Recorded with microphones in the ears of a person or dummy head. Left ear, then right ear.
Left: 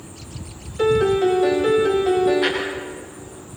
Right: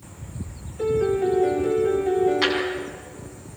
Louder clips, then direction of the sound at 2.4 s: Left 1 dB; 80° right.